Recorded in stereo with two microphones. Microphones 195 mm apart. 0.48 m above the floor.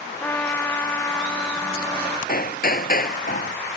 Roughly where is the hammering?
Left.